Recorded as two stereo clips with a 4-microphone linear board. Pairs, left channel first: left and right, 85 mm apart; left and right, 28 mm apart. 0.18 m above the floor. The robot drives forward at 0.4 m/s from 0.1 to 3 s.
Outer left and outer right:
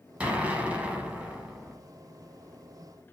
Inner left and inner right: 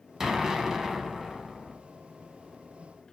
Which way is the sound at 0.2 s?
15° right (ahead or behind).